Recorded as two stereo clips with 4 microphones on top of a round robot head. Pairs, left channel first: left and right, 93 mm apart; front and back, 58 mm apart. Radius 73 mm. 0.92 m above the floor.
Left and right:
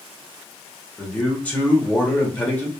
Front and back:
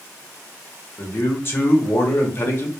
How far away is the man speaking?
About 1.1 m.